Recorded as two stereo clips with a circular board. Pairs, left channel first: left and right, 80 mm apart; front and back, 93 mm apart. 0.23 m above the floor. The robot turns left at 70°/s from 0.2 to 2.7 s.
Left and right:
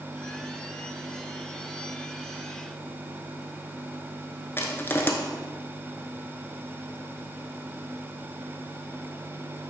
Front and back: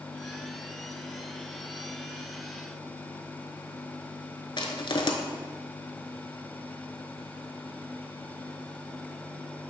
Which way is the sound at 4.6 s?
30° left.